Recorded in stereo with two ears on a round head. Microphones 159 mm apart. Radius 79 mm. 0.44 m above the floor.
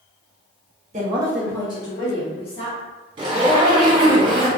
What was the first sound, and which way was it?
A woman speaking, 40° right (ahead or behind).